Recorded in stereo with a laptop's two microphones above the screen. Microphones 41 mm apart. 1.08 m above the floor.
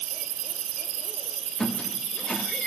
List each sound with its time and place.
1.6 s a squeak: 15° left (ahead or behind), 1.0 m